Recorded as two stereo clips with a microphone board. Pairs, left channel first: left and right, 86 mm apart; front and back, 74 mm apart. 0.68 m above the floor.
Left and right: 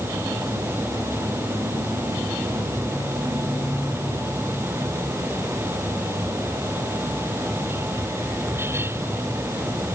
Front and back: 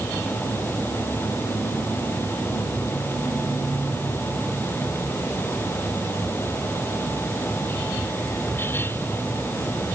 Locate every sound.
Only background noise.